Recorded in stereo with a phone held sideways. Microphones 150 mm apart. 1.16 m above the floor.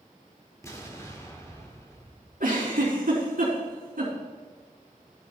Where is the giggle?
75° right (ahead or behind), 4 m.